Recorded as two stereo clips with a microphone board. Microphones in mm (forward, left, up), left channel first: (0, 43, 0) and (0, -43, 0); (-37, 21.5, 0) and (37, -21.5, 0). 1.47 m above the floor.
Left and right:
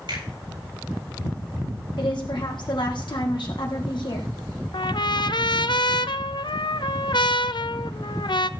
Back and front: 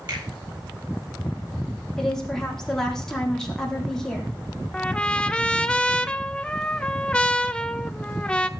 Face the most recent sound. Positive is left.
turn(degrees=75)